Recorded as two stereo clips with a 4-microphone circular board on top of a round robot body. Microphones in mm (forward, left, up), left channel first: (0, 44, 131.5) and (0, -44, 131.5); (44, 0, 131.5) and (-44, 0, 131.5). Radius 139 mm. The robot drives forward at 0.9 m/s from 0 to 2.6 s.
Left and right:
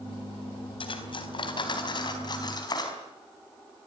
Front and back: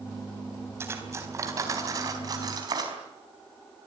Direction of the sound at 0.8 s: 115° left.